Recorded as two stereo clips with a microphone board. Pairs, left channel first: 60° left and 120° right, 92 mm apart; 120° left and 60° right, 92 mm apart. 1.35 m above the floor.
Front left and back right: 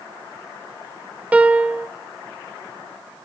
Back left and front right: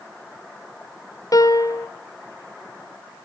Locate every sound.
1.3 s a piano: 165° left, 1.0 m